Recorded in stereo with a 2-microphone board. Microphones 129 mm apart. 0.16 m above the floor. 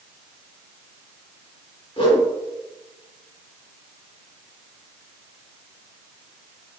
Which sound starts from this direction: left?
A whoosh, at 2.0 s.